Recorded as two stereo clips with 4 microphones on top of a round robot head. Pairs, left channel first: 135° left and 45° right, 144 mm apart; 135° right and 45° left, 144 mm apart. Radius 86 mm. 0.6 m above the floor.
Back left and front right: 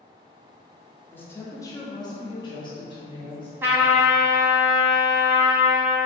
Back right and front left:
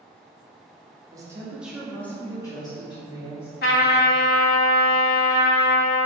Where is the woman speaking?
75° left, 1.1 m; by 3.5 s 175° right, 1.7 m.